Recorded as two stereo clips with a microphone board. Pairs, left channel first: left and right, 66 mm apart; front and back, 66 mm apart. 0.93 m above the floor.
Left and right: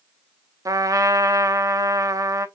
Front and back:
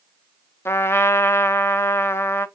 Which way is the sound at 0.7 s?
55° right.